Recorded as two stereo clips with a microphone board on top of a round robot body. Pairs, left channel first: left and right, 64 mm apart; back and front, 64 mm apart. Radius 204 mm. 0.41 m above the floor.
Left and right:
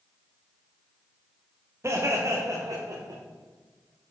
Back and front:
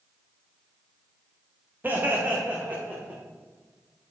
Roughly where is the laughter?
Ahead right.